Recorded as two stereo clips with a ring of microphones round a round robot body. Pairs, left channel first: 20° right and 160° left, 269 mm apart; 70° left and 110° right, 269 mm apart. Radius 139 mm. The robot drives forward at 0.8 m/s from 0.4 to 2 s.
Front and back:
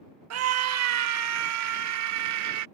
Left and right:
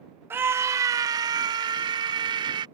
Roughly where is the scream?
Behind.